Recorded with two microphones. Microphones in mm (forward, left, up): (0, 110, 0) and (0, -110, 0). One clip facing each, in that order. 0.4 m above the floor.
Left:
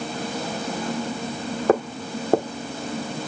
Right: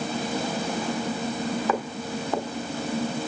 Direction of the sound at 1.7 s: 50° left (ahead or behind).